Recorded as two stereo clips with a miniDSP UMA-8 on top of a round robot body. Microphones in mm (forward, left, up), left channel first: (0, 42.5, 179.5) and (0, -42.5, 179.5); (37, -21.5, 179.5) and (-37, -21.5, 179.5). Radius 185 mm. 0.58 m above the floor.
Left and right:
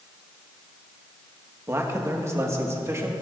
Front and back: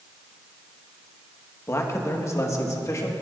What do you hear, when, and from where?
1.7 s a man speaking: 40° right, 1.7 m; by 3.1 s 35° right, 2.5 m